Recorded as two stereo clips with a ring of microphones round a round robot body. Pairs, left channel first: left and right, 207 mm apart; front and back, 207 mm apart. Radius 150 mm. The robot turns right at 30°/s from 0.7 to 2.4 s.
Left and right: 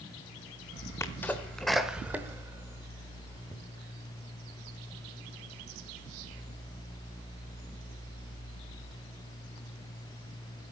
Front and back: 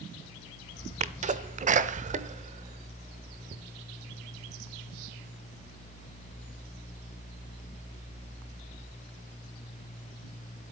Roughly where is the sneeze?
Behind.